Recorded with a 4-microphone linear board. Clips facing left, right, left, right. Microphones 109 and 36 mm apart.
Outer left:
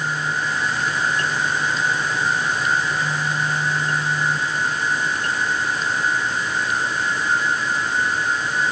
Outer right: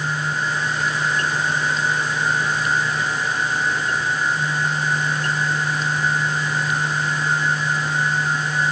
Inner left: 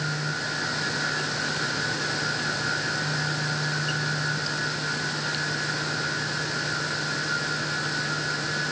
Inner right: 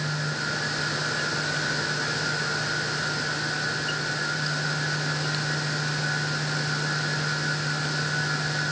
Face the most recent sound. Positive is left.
No sound to turn to.